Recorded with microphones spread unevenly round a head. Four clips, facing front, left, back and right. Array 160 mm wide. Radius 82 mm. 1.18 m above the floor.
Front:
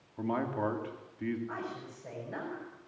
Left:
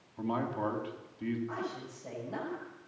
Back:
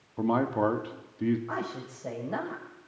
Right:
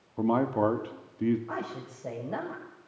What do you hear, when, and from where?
0.2 s a man speaking: 120° right, 3 m
1.5 s a woman speaking: 130° right, 7.5 m